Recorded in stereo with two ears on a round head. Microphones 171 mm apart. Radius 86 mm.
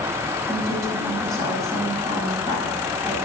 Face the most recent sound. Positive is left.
turn(degrees=-15)  # may be behind; listen again after turning